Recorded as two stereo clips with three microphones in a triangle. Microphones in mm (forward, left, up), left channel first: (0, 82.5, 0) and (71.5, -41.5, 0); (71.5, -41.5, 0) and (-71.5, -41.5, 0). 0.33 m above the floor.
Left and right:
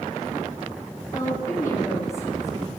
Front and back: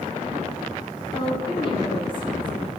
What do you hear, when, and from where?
1.1 s a woman speaking: 50° left, 3.5 m